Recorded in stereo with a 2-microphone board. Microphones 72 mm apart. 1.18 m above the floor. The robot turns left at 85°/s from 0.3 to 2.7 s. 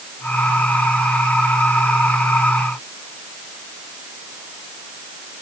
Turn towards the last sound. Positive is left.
No sound to turn to.